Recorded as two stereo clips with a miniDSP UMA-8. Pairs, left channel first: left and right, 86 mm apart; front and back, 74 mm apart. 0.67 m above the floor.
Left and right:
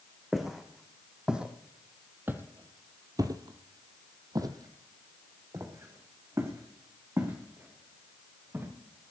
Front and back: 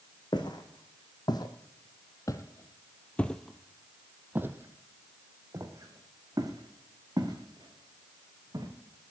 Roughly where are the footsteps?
Ahead.